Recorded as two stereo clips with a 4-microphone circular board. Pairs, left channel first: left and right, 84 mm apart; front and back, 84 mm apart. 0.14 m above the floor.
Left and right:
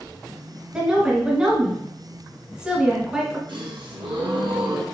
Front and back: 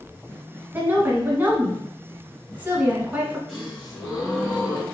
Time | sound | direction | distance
0.7 | a woman speaking | 155° right | 1.0 m
3.5 | a gasp | 85° right | 2 m